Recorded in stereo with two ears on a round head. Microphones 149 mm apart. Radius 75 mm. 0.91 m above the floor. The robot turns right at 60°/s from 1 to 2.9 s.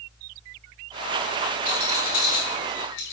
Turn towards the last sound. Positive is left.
turn(degrees=80)